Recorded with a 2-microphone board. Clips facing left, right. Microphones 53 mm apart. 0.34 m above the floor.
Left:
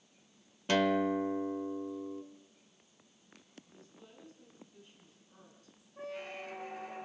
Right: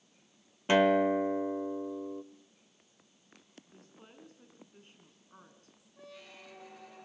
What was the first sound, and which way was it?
A guitar, 20° right (ahead or behind).